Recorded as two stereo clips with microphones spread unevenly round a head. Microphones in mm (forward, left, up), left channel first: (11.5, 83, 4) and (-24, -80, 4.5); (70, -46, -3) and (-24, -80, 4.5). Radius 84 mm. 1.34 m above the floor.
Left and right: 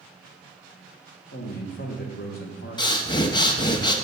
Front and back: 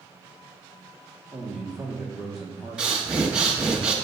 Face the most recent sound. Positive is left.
turn(degrees=125)